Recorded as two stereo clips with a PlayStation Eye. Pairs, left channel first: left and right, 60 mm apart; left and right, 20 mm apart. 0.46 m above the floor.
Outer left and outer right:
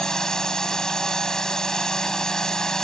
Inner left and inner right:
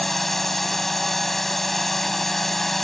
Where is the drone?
10° left (ahead or behind).